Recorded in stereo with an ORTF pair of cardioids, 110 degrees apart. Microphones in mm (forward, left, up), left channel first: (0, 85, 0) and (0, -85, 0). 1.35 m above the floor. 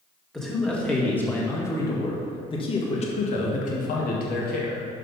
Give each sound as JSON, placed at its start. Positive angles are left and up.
{"t": 0.3, "sound": "a man speaking", "azimuth_deg": 0, "distance_m": 2.5}